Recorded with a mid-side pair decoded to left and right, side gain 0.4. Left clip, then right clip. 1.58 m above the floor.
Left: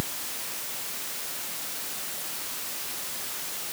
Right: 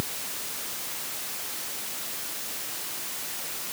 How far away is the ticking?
I don't hear ticking.